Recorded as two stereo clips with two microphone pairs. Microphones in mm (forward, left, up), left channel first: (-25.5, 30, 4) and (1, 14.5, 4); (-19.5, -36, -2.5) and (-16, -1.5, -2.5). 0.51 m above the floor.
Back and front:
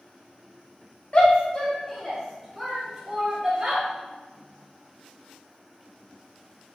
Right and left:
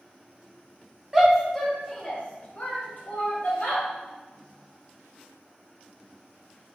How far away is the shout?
About 0.8 m.